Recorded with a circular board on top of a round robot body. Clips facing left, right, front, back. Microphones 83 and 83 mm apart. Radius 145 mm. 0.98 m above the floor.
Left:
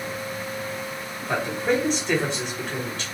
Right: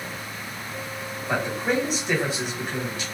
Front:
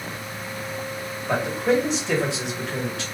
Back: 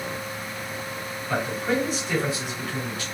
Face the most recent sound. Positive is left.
turn(degrees=-10)